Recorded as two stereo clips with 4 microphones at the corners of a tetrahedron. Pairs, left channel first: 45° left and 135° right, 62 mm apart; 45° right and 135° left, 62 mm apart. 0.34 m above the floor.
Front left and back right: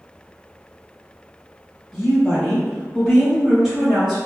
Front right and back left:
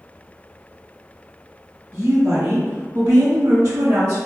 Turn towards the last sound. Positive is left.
turn(degrees=140)